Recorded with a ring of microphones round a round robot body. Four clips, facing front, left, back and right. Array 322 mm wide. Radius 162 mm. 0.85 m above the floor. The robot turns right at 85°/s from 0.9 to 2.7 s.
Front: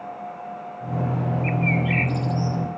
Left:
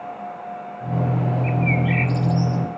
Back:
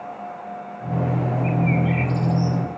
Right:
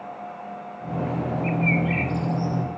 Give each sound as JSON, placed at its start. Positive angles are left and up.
{"t": 1.4, "sound": "a bird", "azimuth_deg": -5, "distance_m": 2.0}